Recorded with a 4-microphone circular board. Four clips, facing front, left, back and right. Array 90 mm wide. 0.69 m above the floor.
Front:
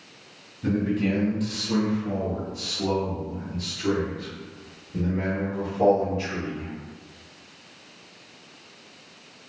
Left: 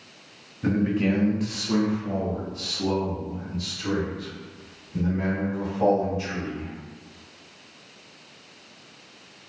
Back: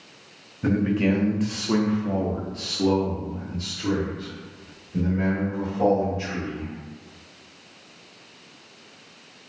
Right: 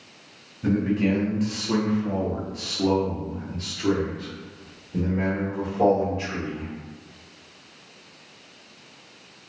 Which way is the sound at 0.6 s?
160° left.